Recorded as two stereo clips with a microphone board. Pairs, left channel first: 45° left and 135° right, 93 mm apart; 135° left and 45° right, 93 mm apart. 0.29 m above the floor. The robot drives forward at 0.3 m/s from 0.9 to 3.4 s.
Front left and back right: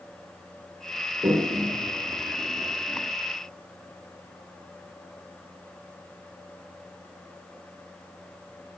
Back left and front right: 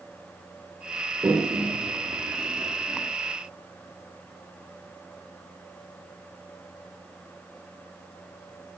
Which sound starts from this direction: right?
A toilet flushing, at 1.2 s.